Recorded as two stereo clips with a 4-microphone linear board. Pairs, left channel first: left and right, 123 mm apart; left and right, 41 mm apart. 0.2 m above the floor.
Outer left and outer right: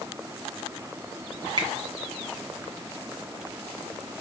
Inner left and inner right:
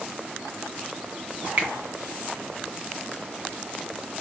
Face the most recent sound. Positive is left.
turn(degrees=-45)  # may be behind; listen again after turning